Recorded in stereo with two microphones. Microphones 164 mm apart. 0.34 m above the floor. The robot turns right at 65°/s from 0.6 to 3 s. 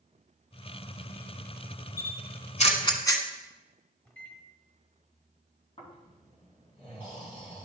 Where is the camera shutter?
85° left, 1.0 m; by 3.2 s 25° left (ahead or behind), 1.0 m.